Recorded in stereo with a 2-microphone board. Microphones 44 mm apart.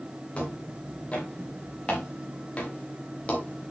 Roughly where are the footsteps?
Left.